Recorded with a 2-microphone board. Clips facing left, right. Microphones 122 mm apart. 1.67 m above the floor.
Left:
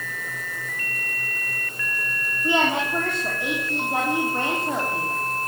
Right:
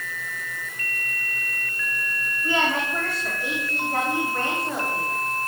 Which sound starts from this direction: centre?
A woman speaking, at 2.4 s.